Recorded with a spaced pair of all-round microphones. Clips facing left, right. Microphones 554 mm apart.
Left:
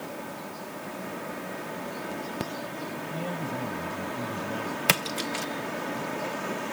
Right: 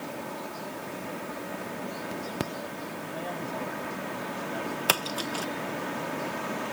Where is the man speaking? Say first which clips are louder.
Left 2 dB; 50° left (ahead or behind); by 4.8 s 65° left (ahead or behind).